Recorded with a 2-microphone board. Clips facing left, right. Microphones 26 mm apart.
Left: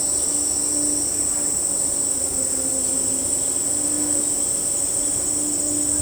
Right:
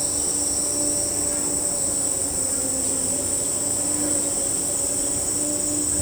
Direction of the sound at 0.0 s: 30° right (ahead or behind).